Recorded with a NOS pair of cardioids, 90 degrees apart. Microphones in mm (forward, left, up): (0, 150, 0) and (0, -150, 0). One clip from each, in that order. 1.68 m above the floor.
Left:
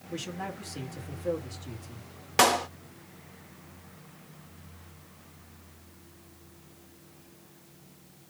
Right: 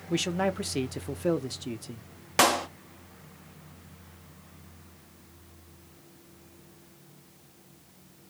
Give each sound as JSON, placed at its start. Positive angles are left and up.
{"t": 0.1, "sound": "a man speaking", "azimuth_deg": -70, "distance_m": 1.0}
{"t": 2.4, "sound": "a clap", "azimuth_deg": 0, "distance_m": 0.8}